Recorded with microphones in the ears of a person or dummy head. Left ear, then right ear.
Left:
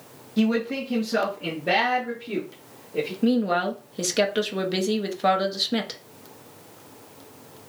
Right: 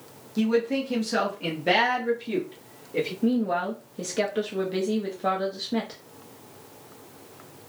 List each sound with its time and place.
0.4 s a man speaking: 15° left (ahead or behind), 0.5 m; by 3.1 s 45° right (ahead or behind), 1.3 m
3.2 s a woman speaking: 35° left (ahead or behind), 0.5 m